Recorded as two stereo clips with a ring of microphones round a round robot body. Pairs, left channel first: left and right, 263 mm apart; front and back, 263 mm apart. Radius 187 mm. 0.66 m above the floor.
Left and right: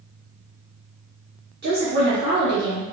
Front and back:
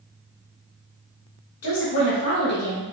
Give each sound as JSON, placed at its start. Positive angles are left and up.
{"t": 1.6, "sound": "a woman speaking", "azimuth_deg": -30, "distance_m": 1.8}